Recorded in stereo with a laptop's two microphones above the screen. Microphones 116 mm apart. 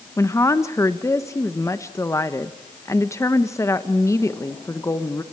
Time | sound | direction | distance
0.2 | a woman speaking | 25° left (ahead or behind) | 0.9 m